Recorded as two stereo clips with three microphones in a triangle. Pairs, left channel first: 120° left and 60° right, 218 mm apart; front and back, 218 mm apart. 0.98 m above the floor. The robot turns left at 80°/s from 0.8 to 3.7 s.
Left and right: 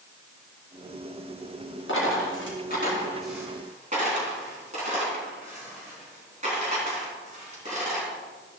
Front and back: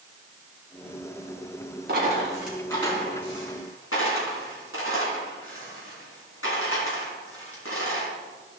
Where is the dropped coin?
140° left, 3 m; by 8.1 s 5° right, 3 m.